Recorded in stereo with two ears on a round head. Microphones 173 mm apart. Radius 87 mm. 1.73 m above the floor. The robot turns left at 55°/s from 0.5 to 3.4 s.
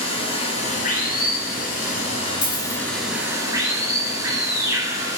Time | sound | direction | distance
0.0 | running water | 135° left | 2.5 m
2.4 | a dropped coin | 10° left (ahead or behind) | 1.6 m